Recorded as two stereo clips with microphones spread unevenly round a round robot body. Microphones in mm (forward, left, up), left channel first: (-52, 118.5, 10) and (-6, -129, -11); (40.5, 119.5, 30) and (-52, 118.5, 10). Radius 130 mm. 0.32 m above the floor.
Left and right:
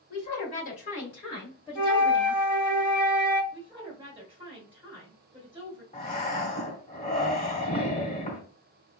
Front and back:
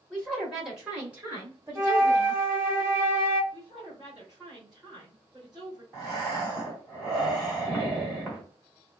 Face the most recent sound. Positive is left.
turn(degrees=135)